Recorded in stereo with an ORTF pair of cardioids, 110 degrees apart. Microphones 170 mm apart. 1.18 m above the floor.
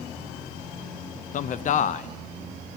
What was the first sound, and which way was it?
A man speaking, 50° left.